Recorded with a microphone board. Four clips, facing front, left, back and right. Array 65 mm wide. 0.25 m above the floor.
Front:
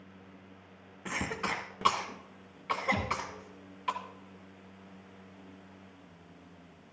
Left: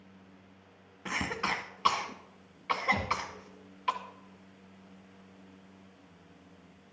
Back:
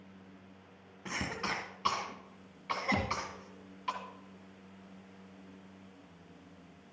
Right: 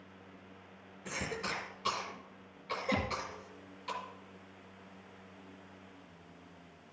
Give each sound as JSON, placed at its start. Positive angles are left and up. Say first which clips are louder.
{"t": 1.1, "sound": "a cough", "louder": "left 6 dB, front 3 dB", "azimuth_deg": 65, "distance_m": 1.8}
{"t": 2.9, "sound": "a thud", "louder": "even, back 2 dB", "azimuth_deg": -140, "distance_m": 1.8}